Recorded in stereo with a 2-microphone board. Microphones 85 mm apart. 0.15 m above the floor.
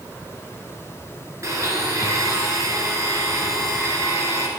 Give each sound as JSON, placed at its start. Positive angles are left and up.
{"t": 1.4, "sound": "a blender", "side_deg": -40, "distance_m": 1.7}